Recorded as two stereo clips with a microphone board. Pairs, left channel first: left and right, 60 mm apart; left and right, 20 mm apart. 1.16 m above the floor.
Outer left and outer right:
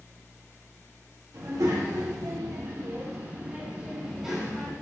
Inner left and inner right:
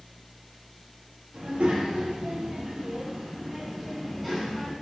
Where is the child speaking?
80° right, 1.3 m; by 4.7 s centre (ahead or behind), 1.4 m.